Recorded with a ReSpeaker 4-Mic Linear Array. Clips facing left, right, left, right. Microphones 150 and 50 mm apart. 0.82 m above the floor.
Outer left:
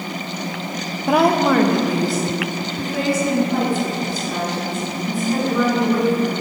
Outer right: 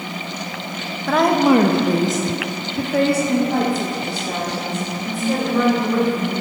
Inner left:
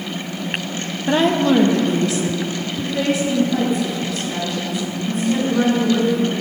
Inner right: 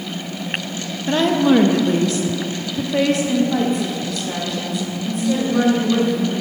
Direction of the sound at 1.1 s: 15° left (ahead or behind).